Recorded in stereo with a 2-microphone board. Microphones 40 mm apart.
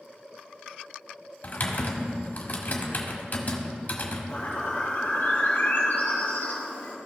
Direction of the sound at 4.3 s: 70° left (ahead or behind).